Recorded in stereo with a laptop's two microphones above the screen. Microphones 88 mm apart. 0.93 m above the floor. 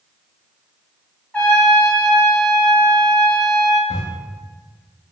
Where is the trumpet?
20° left (ahead or behind), 0.6 m.